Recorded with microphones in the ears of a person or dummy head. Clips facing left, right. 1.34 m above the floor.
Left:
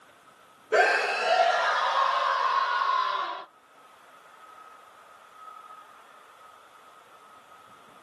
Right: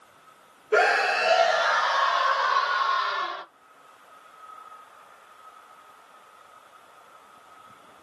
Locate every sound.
0.7 s a scream: 5° left (ahead or behind), 0.6 m; by 3.4 s 65° right (ahead or behind), 1.8 m